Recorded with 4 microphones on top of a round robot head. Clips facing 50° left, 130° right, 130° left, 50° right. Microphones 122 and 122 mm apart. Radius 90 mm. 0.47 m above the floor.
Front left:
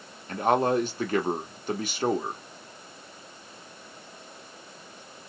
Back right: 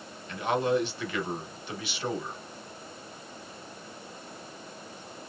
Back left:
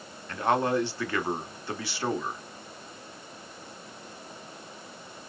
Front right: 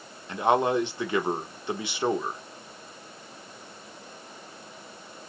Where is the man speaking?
15° left, 1.2 m.